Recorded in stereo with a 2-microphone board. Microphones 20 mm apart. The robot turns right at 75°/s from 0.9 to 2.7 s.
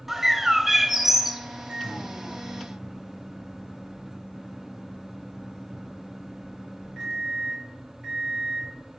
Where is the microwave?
115° right, 2.5 m; by 8.7 s 35° right, 2.5 m.